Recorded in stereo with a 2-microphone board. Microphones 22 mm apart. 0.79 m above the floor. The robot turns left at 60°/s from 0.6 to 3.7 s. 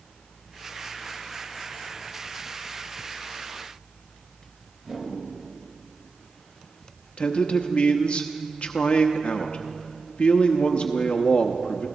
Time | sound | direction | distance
4.8 | a whoosh | 25° right (ahead or behind) | 4 m
7.2 | a man speaking | 60° left (ahead or behind) | 0.9 m